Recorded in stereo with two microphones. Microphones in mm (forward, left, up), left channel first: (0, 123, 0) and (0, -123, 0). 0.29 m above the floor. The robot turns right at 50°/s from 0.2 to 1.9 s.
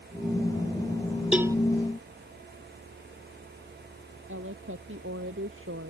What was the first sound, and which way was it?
A cowbell, 5° right (ahead or behind).